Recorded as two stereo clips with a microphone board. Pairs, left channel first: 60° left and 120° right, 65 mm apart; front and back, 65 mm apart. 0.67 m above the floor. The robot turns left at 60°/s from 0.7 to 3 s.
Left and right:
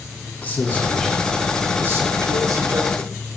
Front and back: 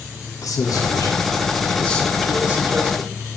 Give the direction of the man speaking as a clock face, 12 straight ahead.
12 o'clock.